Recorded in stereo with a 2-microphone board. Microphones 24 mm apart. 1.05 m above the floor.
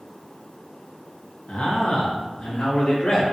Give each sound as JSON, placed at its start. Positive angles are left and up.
{"t": 1.5, "sound": "a man speaking", "side_deg": 65, "distance_m": 1.1}